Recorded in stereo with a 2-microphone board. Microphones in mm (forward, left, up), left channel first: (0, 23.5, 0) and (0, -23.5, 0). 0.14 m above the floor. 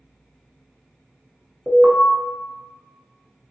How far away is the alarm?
About 0.8 m.